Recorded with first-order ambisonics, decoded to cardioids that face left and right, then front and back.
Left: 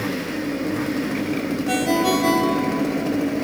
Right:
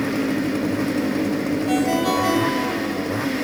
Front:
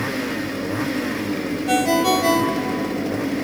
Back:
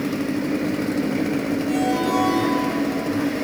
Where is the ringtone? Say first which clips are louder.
Left 1 dB, front 5 dB; 15° left, 1.6 m.